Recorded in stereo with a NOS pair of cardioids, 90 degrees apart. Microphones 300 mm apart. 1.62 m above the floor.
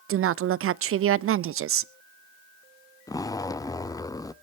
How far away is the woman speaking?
About 0.5 m.